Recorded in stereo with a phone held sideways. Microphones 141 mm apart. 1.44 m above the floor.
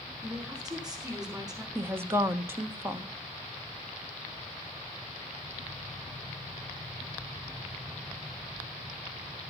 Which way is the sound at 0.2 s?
25° right (ahead or behind).